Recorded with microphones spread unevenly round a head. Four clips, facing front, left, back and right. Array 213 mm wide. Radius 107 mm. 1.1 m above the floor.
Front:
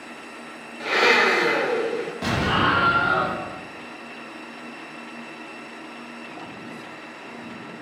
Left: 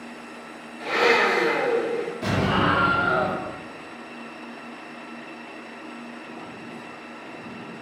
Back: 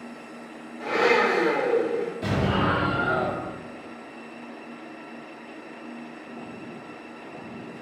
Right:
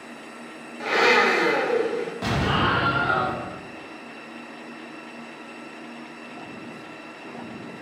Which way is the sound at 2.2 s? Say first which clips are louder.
Left 1 dB, front 4 dB; 35° right.